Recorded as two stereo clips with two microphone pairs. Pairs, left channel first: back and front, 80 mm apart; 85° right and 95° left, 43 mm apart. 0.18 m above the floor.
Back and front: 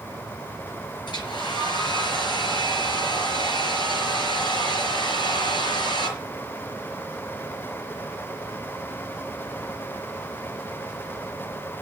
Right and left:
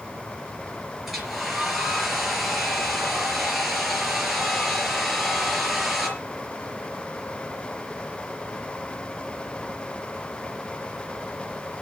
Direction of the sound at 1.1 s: 175° right.